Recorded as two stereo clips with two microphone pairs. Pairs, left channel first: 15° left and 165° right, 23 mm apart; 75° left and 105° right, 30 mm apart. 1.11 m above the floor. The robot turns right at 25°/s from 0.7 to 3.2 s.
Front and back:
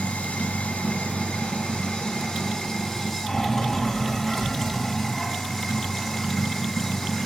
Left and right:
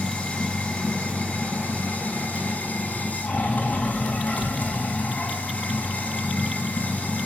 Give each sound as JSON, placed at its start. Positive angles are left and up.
{"t": 0.0, "sound": "running water", "azimuth_deg": 40, "distance_m": 3.5}